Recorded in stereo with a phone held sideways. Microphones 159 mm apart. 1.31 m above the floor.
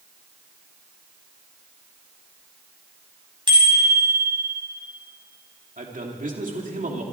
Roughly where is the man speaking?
Right.